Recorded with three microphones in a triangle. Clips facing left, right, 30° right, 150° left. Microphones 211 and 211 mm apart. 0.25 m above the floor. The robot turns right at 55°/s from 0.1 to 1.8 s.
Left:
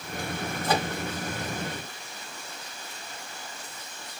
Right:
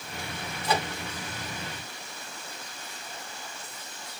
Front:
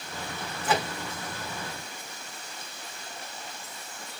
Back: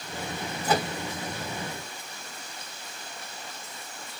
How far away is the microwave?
About 2.0 m.